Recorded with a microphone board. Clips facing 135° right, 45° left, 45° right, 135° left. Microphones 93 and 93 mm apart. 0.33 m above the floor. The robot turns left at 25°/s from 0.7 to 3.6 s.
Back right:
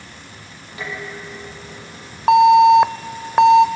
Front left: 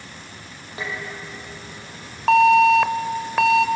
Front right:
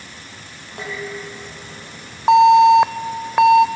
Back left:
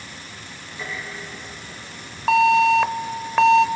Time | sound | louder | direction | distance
0.8 | dishes clattering | back right 1 dB, front right 5 dB | 20° right | 7.5 m
2.3 | an alarm | back right 4 dB, front right 7 dB | 90° right | 0.7 m